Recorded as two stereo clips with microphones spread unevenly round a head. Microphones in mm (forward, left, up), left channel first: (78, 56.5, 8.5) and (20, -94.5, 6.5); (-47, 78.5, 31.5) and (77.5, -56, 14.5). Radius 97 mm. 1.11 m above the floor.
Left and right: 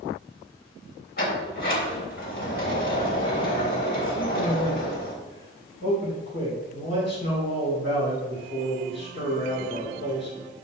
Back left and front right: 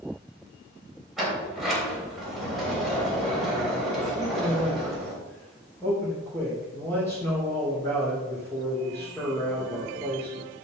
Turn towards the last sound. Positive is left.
turn(degrees=55)